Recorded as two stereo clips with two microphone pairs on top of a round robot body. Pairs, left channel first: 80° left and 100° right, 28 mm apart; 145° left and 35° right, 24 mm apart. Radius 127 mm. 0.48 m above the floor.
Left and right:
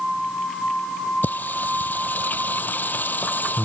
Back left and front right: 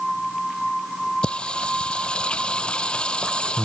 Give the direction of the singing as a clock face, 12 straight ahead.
9 o'clock.